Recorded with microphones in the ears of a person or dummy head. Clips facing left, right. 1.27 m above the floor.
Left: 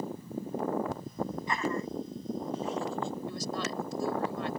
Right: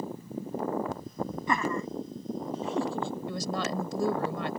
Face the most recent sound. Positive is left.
turn(degrees=-60)  # may be behind; listen again after turning